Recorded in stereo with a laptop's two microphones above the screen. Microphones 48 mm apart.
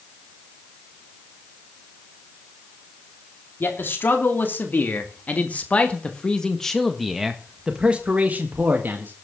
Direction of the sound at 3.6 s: 55° left (ahead or behind).